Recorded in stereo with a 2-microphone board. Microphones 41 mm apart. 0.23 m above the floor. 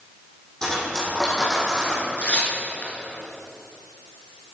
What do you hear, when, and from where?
0.6 s cutlery clinking: 15° left (ahead or behind), 5 m
2.2 s tearing paper: 40° left (ahead or behind), 3 m